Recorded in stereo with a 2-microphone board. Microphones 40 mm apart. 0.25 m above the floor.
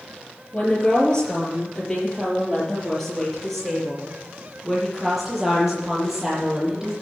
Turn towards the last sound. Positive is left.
turn(degrees=-10)  # may be behind; listen again after turning